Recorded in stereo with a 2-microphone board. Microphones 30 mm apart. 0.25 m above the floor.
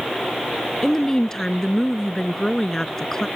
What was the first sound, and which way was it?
A woman speaking, 20° left (ahead or behind).